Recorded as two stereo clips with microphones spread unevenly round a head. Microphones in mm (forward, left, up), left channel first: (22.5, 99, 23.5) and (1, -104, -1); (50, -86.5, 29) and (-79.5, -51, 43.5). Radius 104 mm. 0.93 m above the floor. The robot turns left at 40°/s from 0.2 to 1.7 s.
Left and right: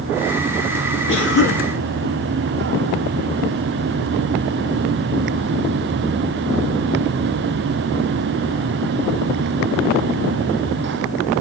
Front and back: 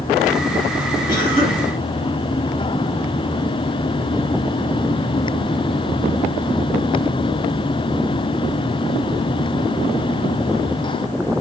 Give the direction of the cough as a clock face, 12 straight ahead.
10 o'clock.